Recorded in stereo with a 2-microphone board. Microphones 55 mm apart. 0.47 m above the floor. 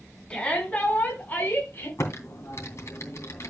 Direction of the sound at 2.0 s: 60° left (ahead or behind).